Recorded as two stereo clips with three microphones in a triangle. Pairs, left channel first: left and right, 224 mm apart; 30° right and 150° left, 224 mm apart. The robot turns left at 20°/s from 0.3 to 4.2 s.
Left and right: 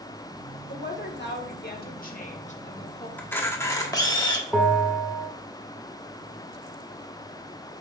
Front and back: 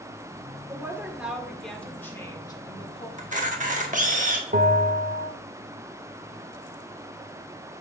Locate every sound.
0.7 s a woman speaking: 75° left, 1.4 m; by 3.1 s 30° left, 1.4 m
3.2 s a camera shutter: 165° left, 1.1 m; by 4.4 s 145° left, 1.1 m
4.5 s a bell: 170° right, 1.1 m